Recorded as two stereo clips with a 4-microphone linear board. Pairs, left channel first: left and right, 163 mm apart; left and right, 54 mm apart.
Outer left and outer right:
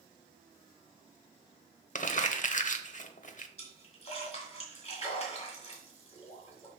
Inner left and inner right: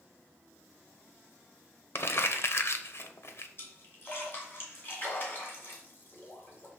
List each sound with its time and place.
1.9 s crumpling: 55° left (ahead or behind), 0.7 m
3.6 s a splash: 45° left (ahead or behind), 2.5 m